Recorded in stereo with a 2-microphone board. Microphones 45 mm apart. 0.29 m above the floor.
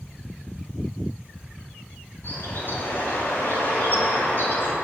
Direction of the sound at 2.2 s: 50° left (ahead or behind).